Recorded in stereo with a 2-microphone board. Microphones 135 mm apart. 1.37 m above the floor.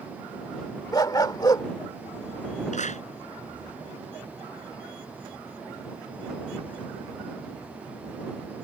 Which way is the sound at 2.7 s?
60° left (ahead or behind).